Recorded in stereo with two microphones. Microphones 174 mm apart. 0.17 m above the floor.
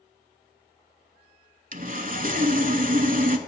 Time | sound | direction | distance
1.7 | sawing | 55° right (ahead or behind) | 0.5 m